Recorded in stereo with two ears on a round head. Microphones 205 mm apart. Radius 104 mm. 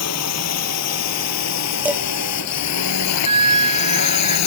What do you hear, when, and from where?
0.0 s a drone: 75° left (ahead or behind); by 4.5 s 80° left
1.9 s dishes clattering: 5° right (ahead or behind)
3.2 s a flute: 25° right (ahead or behind)